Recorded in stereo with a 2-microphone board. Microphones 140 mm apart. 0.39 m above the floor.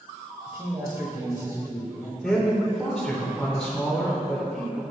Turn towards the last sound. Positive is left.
turn(degrees=5)  # may be behind; listen again after turning